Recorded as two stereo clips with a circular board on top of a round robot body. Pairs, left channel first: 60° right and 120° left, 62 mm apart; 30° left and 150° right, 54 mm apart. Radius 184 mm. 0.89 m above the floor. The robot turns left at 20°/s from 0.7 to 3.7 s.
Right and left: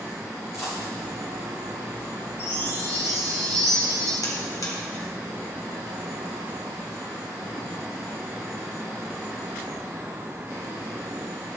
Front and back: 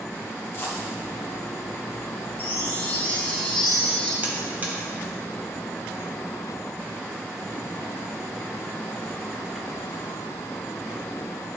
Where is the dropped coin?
20° right, 3 m; by 0.9 s 25° right, 3 m.